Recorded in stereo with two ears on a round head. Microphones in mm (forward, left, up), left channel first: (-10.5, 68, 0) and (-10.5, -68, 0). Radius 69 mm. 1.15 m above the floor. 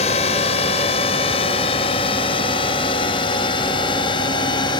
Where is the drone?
40° left (ahead or behind); by 4.8 s 30° left (ahead or behind).